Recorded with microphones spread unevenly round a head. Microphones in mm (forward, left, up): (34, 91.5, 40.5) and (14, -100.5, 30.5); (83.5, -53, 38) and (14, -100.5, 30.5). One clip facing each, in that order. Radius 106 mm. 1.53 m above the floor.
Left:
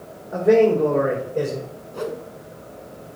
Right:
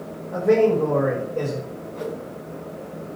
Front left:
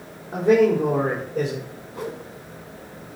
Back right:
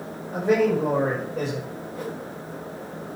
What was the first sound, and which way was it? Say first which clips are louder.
A man speaking: left 2 dB, front left 4 dB; 10° left.